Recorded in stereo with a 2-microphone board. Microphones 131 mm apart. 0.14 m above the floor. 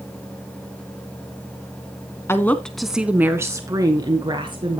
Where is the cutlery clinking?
No cutlery clinking in this recording.